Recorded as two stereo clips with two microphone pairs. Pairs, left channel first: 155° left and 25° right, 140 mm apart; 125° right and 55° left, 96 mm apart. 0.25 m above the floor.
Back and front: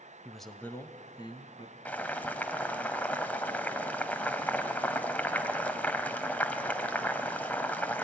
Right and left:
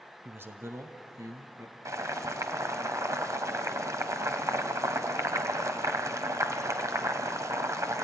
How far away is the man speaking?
About 0.9 m.